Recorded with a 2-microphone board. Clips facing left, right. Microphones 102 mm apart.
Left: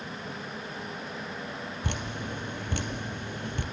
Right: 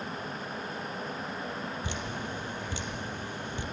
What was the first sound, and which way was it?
Dripping, 55° left (ahead or behind).